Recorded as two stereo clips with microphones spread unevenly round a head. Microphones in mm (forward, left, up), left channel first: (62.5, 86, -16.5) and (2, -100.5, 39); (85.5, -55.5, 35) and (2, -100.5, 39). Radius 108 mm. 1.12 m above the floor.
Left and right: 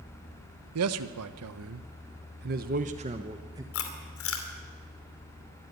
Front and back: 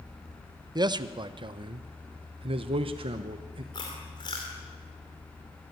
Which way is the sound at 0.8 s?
110° right.